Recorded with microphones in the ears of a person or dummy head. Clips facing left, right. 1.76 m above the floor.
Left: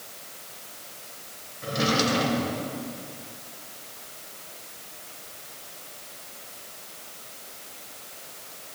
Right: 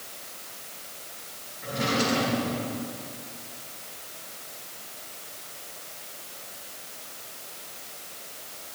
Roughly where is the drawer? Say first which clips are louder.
Left 2 dB; left.